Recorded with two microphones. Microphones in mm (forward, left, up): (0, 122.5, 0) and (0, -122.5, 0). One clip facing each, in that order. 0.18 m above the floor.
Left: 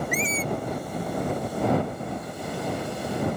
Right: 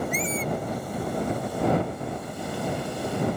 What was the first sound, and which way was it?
A squeak, 75° left (ahead or behind).